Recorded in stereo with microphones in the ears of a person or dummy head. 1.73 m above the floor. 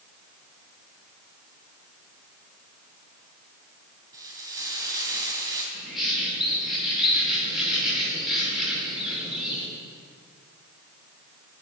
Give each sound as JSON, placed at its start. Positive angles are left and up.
{"t": 4.1, "sound": "frying", "side_deg": -20, "distance_m": 3.0}
{"t": 5.7, "sound": "a bird", "side_deg": 0, "distance_m": 4.0}